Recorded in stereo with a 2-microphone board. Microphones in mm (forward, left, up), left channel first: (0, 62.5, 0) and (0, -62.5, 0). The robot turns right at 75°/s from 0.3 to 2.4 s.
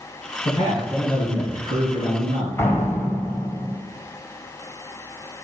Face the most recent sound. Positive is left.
turn(degrees=20)  # may be behind; listen again after turning